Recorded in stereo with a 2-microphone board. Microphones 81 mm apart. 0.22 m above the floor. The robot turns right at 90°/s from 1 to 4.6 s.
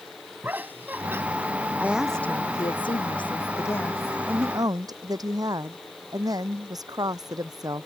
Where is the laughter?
25° right (ahead or behind); by 1.2 s 35° right (ahead or behind).